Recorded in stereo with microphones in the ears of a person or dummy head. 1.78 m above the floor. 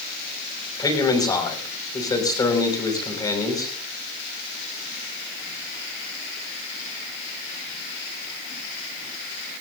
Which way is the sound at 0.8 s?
15° left (ahead or behind).